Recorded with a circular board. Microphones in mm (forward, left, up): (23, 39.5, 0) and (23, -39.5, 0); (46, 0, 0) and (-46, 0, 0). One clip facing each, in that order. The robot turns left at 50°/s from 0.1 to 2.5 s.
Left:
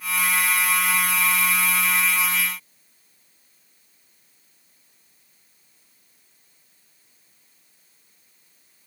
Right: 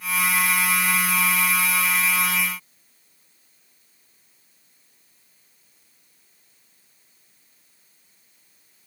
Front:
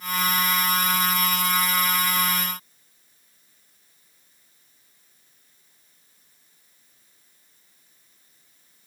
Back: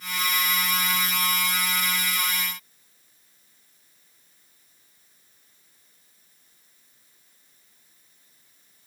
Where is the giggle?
No giggle in this recording.